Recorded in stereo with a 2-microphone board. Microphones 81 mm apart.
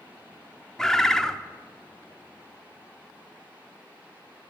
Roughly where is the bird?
Centre.